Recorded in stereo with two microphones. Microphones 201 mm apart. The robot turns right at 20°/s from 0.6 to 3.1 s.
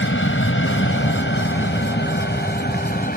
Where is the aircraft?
70° left (ahead or behind); by 3.2 s 45° left (ahead or behind).